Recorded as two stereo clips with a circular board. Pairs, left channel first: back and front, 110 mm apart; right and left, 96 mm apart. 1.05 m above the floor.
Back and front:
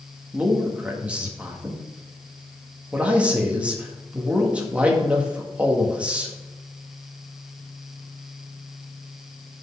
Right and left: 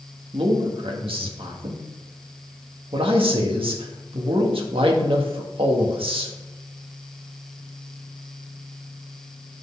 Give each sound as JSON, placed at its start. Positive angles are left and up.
{"t": 0.3, "sound": "a man speaking", "azimuth_deg": 80, "distance_m": 1.5}